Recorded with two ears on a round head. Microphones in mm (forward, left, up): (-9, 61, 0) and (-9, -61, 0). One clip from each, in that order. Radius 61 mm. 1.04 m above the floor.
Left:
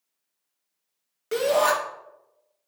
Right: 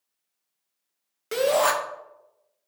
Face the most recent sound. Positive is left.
turn(degrees=-15)  # may be behind; listen again after turning